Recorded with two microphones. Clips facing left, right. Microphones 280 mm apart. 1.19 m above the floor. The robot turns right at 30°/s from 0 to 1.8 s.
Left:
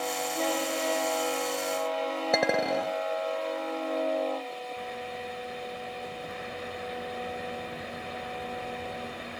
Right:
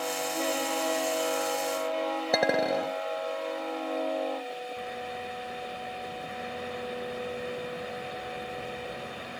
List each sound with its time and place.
2.3 s a clink: 5° right (ahead or behind)